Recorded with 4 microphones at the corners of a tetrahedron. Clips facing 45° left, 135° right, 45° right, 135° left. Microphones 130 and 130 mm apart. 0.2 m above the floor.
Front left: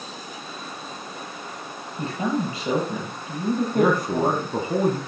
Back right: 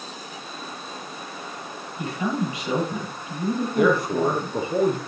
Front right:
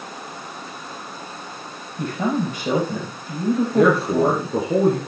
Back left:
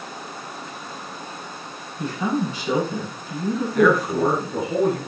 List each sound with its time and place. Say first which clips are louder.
2.0 s a man speaking: front left 1 dB, front right 1 dB; 15° right, 6.5 m
3.8 s a man speaking: back right 1 dB, even; 10° left, 2 m